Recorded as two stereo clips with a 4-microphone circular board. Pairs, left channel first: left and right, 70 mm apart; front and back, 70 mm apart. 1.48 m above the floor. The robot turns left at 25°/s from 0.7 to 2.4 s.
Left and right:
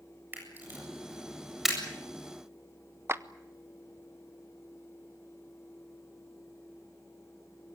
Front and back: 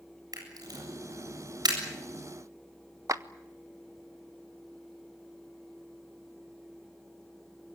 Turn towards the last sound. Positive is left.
turn(degrees=-140)